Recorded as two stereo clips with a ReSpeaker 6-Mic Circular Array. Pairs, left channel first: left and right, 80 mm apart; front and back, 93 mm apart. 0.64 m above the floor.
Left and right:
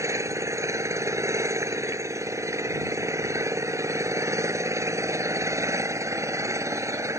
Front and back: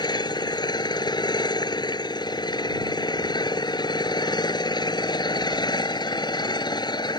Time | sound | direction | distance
0.0 | an engine running | 40° right | ?